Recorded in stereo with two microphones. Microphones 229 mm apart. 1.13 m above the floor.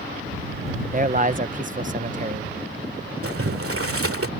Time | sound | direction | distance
0.9 | a man speaking | 35° right (ahead or behind) | ?
3.2 | boiling | 75° right (ahead or behind) | ?